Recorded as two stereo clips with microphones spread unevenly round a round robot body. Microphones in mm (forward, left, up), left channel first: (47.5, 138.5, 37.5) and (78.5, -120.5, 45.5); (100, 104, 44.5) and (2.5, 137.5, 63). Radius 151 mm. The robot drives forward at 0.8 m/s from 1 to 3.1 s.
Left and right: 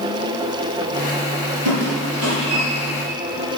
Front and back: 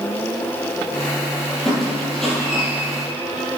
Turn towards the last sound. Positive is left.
turn(degrees=-135)